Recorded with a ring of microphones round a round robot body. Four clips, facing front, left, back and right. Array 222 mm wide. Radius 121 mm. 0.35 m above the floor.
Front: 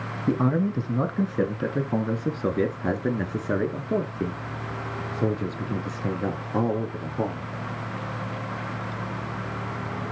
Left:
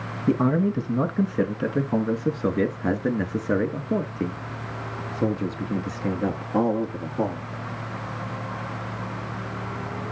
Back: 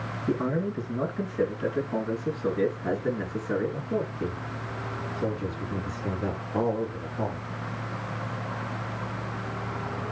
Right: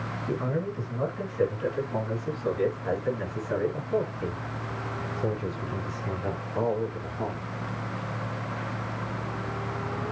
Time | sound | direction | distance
0.3 | a man speaking | 50° left | 3.5 m